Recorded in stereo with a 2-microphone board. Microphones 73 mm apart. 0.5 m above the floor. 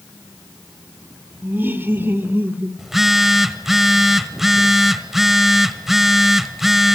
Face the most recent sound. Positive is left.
turn(degrees=-5)  # may be behind; listen again after turning